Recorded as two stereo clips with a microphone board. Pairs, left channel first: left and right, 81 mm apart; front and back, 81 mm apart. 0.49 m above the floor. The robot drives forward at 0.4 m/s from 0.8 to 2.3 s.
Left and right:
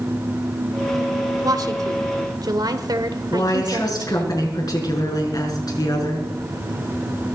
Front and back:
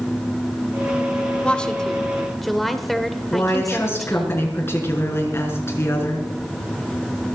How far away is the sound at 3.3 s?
About 6 m.